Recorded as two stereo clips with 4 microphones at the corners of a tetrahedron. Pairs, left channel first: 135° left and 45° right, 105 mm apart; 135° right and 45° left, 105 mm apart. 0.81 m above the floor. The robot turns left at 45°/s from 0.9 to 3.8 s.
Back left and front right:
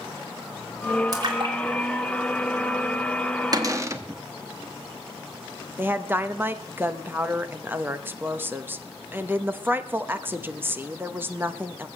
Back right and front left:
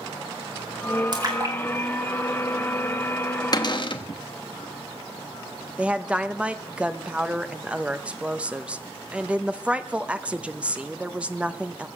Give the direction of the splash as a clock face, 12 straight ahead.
12 o'clock.